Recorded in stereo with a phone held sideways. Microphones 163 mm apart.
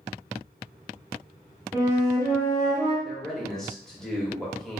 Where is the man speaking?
5° left (ahead or behind), 0.8 m.